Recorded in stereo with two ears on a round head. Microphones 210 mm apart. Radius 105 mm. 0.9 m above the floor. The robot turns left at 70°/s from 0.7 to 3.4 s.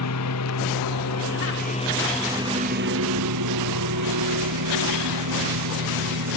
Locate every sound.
0.0 s a lawn mower: 105° left; by 6.4 s 85° right